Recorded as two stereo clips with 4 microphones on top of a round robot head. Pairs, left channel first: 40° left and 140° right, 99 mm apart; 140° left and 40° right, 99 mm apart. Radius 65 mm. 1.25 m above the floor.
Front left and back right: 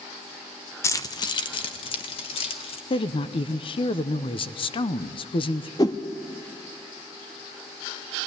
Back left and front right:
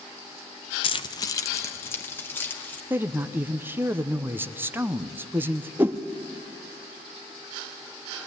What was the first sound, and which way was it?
Keys jangling, 105° left.